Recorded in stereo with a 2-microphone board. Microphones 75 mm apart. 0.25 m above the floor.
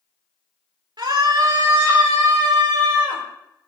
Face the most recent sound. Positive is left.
turn(degrees=-80)